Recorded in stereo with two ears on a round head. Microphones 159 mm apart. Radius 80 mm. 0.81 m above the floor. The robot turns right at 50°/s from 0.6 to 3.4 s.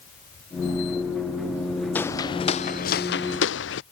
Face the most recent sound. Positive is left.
turn(degrees=70)  # may be behind; listen again after turning